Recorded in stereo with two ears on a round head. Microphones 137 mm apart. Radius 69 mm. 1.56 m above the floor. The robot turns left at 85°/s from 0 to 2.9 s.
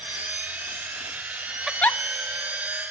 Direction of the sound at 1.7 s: 5° right (ahead or behind).